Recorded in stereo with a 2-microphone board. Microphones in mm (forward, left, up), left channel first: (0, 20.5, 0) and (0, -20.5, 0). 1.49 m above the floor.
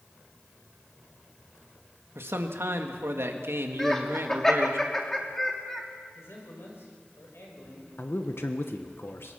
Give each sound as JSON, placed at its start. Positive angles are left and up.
{"t": 2.1, "sound": "a man speaking", "side_deg": -80, "distance_m": 2.0}
{"t": 3.8, "sound": "laughter", "side_deg": 10, "distance_m": 2.5}
{"t": 6.2, "sound": "a man speaking", "side_deg": 85, "distance_m": 6.0}
{"t": 8.0, "sound": "a man speaking", "side_deg": 65, "distance_m": 1.1}